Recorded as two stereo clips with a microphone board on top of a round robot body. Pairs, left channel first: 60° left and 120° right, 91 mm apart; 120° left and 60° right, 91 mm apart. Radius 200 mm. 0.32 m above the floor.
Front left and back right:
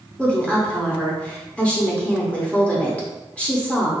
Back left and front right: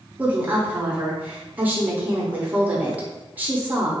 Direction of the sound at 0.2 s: 5° right.